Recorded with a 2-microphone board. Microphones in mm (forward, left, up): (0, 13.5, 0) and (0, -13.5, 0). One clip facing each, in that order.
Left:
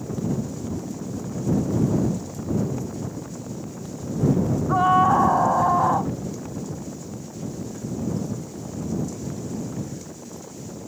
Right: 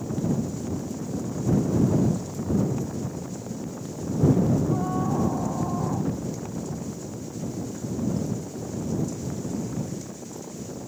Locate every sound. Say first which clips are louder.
4.7 s a scream: left 9 dB; 70° left (ahead or behind); by 6.1 s 65° left (ahead or behind)